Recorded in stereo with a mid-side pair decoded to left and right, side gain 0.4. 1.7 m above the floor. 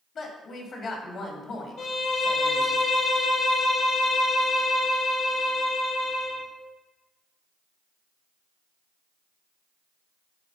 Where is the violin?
65° left, 2 m.